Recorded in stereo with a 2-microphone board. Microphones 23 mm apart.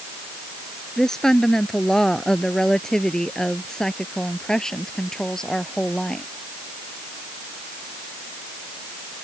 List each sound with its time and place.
1.0 s a woman speaking: 20° left (ahead or behind)